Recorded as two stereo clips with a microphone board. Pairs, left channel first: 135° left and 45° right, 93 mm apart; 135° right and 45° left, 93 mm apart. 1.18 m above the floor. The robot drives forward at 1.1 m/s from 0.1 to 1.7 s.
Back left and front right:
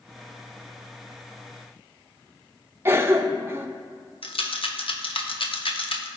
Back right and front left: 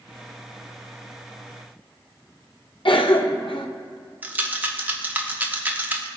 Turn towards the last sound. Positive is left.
turn(degrees=115)